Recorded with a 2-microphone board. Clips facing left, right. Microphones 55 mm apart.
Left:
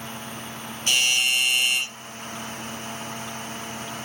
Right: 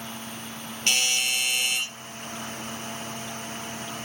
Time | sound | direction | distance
0.9 | a doorbell | 75° right (ahead or behind) | 7.5 m